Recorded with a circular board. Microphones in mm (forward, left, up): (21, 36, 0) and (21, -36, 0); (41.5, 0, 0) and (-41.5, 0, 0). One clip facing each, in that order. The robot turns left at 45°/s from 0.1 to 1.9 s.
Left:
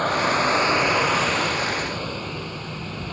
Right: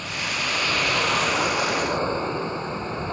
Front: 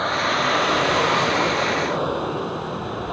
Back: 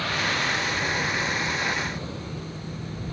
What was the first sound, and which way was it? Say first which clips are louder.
A vehicle: left 9 dB, front 6 dB; 55° left.